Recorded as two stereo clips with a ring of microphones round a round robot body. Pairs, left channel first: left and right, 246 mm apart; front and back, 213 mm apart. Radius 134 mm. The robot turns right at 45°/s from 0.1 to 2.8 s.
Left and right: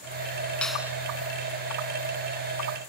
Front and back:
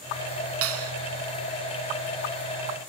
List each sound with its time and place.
0.6 s a clap: 175° left; by 0.9 s 170° right